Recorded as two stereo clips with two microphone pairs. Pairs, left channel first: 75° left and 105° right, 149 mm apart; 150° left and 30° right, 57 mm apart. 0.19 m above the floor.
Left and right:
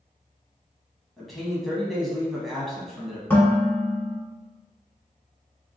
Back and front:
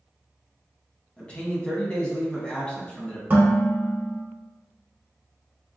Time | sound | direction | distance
1.2 | a man speaking | 165° left | 1.0 m
3.3 | dishes clattering | 10° left | 1.1 m